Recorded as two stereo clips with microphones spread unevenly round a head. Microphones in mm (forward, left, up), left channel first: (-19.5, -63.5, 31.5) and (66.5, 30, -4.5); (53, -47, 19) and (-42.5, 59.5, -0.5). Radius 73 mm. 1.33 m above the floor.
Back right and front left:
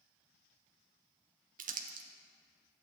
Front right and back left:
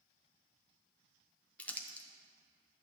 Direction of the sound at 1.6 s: 35° left.